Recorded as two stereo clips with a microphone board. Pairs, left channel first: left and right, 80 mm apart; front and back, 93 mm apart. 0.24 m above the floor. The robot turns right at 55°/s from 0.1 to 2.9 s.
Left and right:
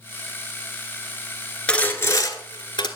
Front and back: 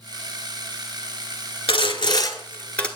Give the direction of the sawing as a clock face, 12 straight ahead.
12 o'clock.